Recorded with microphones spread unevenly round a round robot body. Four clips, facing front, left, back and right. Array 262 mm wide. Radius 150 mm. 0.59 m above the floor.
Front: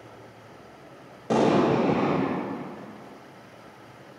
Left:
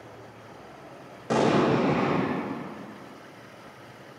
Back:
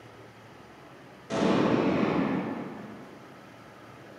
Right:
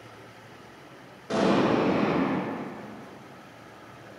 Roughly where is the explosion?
Ahead.